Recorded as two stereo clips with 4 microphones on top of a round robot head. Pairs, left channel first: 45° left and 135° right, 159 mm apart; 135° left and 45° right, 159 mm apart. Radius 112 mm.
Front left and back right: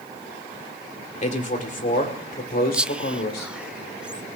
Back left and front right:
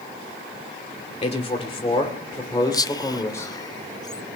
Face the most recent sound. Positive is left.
turn(degrees=150)